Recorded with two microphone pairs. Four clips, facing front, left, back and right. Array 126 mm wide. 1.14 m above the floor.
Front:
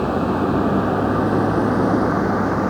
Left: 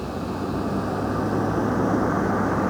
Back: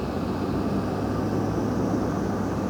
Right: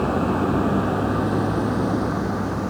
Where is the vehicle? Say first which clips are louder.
Right 7 dB, front 8 dB; 20° right; by 2.7 s 20° left.